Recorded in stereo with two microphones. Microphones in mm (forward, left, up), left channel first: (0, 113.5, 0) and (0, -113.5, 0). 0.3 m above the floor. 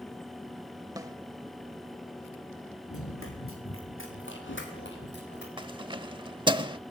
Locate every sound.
1.0 s a snare drum: 15° right (ahead or behind), 1.3 m
2.9 s running footsteps: 70° left (ahead or behind), 7.5 m; by 5.5 s 50° left (ahead or behind), 9 m
5.6 s keys jangling: 20° right (ahead or behind), 0.7 m